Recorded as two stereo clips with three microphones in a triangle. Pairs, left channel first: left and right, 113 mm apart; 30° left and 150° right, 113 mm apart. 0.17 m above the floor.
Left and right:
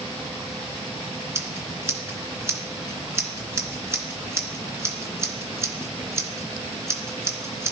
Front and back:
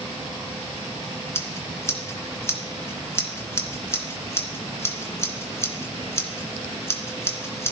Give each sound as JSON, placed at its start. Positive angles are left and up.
{"t": 1.4, "sound": "scissors", "azimuth_deg": -30, "distance_m": 2.5}